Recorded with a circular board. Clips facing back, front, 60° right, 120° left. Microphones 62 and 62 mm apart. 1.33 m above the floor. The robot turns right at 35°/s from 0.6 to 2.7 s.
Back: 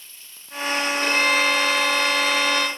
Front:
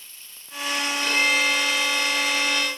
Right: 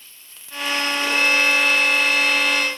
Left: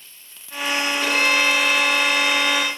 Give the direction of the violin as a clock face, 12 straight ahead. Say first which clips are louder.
Back 2 dB, even; 8 o'clock.